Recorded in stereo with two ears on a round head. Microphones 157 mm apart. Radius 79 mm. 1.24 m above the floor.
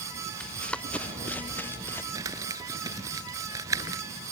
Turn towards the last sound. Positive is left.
turn(degrees=-20)  # may be behind; listen again after turning